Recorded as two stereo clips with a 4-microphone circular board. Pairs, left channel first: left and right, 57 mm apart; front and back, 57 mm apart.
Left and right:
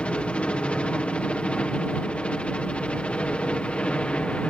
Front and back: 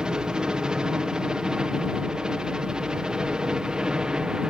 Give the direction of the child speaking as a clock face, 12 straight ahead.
I don't hear a child speaking.